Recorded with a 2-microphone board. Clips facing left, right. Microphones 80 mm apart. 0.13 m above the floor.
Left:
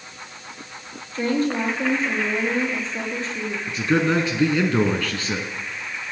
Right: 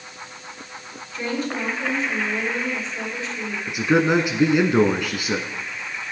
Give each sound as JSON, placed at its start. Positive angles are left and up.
{"t": 1.1, "sound": "a woman speaking", "side_deg": 45, "distance_m": 4.5}
{"t": 3.7, "sound": "a man speaking", "side_deg": -15, "distance_m": 1.0}